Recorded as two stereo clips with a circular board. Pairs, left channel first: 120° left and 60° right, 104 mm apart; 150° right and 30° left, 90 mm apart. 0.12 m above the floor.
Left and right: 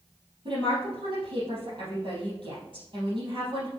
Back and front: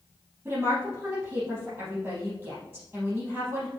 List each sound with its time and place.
0.5 s a woman speaking: 40° right, 3.5 m